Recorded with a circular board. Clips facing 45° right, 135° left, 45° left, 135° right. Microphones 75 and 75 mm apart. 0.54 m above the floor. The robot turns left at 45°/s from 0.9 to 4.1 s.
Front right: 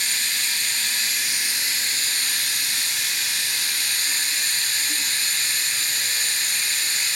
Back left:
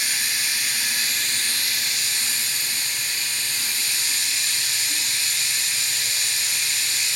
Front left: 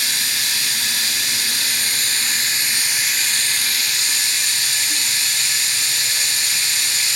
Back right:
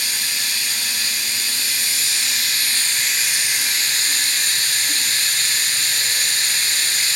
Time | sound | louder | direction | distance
0.0 | running water | even, front left 2 dB | 55° left | 2 m